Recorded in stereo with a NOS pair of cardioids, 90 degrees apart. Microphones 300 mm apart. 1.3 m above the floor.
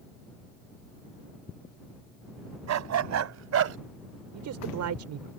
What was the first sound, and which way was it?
A dog barking, 70° right.